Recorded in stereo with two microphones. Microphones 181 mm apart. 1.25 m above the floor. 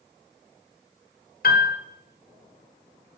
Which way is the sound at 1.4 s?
55° left (ahead or behind).